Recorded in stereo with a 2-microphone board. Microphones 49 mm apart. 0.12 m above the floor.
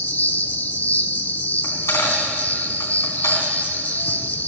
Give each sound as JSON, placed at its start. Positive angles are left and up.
{"t": 0.0, "sound": "an insect", "side_deg": 35, "distance_m": 0.8}
{"t": 1.6, "sound": "a dropped coin", "side_deg": 85, "distance_m": 3.0}